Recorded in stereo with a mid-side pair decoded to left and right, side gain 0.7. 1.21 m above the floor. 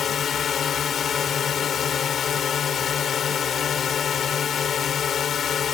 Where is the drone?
35° left.